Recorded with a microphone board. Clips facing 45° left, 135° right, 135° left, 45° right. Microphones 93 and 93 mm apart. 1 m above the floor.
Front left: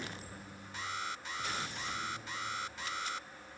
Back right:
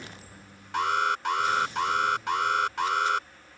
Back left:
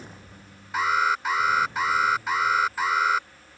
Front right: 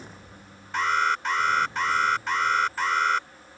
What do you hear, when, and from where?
0.7 s an alarm: 140° right